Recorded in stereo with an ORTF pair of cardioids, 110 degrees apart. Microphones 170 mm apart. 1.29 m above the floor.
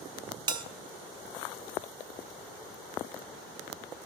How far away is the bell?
About 0.6 m.